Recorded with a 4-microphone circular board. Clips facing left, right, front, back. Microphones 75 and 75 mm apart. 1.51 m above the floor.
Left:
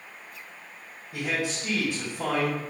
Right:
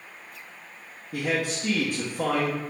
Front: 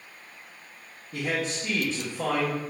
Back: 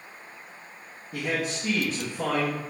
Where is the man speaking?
100° right, 0.7 m.